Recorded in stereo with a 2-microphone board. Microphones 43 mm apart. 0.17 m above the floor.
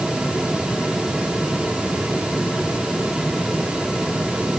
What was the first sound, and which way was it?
Only background noise.